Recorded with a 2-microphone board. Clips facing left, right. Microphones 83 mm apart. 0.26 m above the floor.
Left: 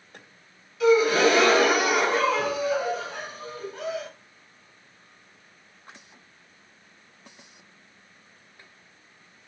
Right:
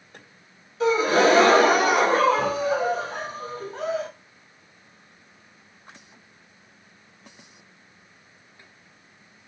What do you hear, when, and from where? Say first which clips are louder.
0.8 s a gasp: even; 35° right (ahead or behind), 1.2 m